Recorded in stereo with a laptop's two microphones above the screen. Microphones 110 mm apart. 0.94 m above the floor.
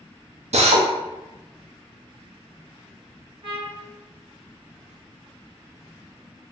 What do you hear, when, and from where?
0.5 s a drill: 85° right, 0.6 m
3.4 s a trumpet: 60° right (ahead or behind), 1.3 m